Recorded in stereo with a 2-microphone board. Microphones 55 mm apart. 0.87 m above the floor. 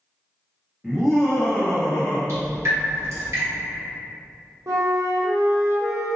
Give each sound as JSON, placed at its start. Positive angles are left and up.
{"t": 0.8, "sound": "laughter", "side_deg": -10, "distance_m": 1.0}
{"t": 2.3, "sound": "dripping", "side_deg": -55, "distance_m": 1.1}
{"t": 4.7, "sound": "a flute", "side_deg": -75, "distance_m": 0.6}